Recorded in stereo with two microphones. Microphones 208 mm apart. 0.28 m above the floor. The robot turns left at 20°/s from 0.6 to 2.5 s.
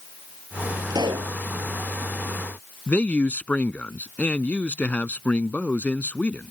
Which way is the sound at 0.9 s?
15° right (ahead or behind).